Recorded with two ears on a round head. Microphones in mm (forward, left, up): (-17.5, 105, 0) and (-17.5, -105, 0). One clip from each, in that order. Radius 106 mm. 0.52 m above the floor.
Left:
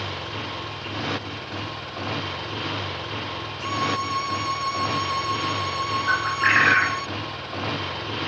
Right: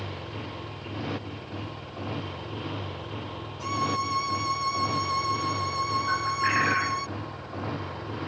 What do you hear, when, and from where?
0.0 s a motorcycle: 40° left (ahead or behind); by 8.3 s 65° left (ahead or behind)
3.6 s a violin: 5° right (ahead or behind)
6.1 s a bird: 40° left (ahead or behind)